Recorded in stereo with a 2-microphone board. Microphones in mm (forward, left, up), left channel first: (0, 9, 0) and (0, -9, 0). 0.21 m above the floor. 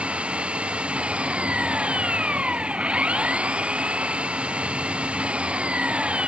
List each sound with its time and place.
0.0 s an engine running: 80° right